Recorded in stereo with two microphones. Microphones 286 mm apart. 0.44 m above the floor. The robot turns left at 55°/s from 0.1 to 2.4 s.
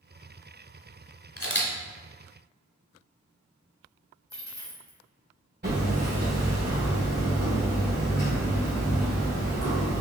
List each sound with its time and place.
1.4 s a camera shutter: 50° left (ahead or behind), 0.9 m; by 1.7 s 30° left (ahead or behind), 0.9 m
4.3 s a dropped coin: 75° left (ahead or behind), 1.9 m
5.6 s hammering: 35° right (ahead or behind), 1.9 m